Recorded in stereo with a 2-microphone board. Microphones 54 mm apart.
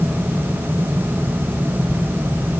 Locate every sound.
Only background noise.